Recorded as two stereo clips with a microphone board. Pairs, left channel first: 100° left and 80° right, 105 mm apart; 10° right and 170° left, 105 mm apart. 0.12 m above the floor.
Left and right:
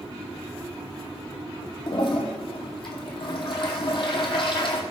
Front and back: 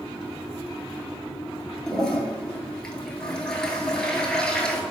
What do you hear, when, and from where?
1.9 s a toilet flushing: 70° left, 0.6 m